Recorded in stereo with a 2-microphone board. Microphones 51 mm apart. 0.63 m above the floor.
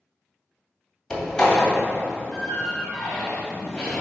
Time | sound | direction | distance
1.1 | a door slam | 15° left (ahead or behind) | 2 m